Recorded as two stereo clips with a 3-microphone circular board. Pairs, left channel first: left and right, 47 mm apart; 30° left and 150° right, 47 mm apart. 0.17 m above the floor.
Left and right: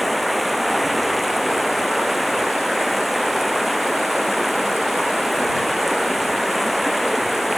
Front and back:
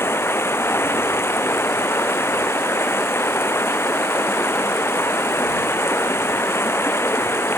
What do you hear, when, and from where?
0.0 s running water: straight ahead